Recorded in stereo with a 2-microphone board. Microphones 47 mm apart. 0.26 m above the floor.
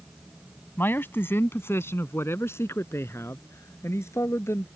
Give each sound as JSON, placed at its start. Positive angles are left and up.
{"t": 0.8, "sound": "a man speaking", "side_deg": 50}